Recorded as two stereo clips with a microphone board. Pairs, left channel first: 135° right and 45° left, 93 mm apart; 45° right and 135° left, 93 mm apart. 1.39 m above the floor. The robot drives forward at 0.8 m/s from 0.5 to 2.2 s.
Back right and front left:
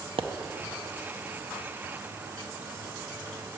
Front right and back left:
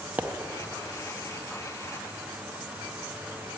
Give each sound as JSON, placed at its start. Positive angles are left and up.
{"t": 0.2, "sound": "a pop", "azimuth_deg": 60, "distance_m": 0.7}